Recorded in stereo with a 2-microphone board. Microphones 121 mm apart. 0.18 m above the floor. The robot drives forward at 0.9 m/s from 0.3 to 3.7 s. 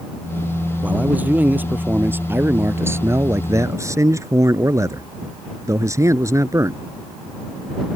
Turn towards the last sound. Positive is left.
turn(degrees=-25)  # may be behind; listen again after turning